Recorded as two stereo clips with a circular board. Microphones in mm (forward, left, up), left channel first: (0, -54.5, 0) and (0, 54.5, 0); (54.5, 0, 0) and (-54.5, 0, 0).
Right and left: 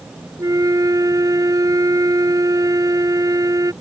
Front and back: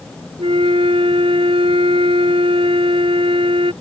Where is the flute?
145° left.